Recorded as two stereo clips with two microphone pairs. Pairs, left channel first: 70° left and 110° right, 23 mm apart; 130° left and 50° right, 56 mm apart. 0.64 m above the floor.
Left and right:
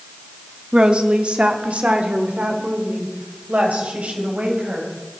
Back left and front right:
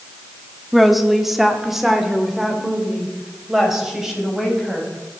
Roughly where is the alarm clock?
No alarm clock in this recording.